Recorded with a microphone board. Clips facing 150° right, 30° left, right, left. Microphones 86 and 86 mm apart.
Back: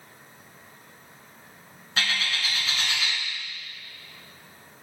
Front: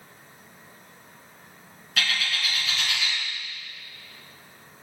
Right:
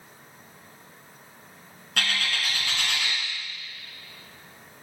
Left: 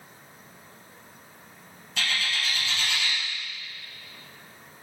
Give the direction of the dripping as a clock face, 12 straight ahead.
No dripping in this recording.